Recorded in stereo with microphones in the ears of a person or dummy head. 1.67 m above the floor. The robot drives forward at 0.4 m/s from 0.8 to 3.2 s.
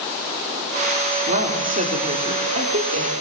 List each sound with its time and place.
1.3 s a woman speaking: 40° right (ahead or behind), 4.5 m; by 3.1 s 35° right (ahead or behind), 5 m